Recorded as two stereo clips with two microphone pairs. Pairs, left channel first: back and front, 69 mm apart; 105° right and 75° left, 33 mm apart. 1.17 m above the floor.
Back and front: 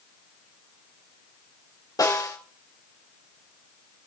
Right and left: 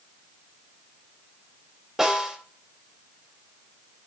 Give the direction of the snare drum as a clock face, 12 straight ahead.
7 o'clock.